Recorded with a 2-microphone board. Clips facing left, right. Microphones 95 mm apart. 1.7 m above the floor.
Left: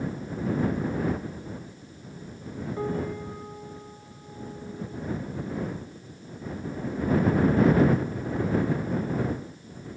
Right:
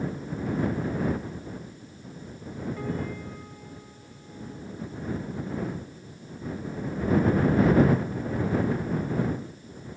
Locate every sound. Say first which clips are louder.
2.8 s a piano: left 6 dB; 30° left (ahead or behind)